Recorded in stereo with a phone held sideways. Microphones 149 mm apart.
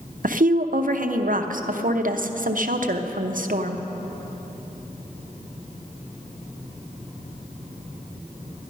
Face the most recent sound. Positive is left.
turn(degrees=-65)  # may be behind; listen again after turning